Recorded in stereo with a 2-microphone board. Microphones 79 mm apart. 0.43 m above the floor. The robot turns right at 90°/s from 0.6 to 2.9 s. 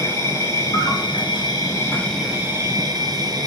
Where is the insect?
40° left, 1.7 m; by 3.5 s 115° right, 1.7 m.